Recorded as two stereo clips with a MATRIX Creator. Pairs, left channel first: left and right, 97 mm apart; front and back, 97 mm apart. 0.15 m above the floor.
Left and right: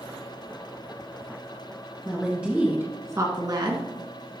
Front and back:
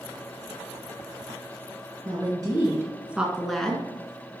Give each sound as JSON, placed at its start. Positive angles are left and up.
{"t": 2.0, "sound": "a woman speaking", "azimuth_deg": 180, "distance_m": 1.9}